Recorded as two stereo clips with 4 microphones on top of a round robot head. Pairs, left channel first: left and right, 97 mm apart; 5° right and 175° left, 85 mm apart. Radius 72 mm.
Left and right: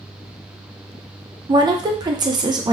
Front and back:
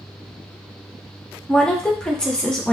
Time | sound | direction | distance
1.5 | a woman speaking | 85° right | 0.7 m